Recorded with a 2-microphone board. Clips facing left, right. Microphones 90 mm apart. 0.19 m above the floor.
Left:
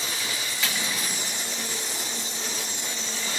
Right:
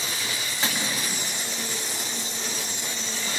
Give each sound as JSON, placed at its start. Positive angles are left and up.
{"t": 0.6, "sound": "cutlery clinking", "side_deg": -35, "distance_m": 2.0}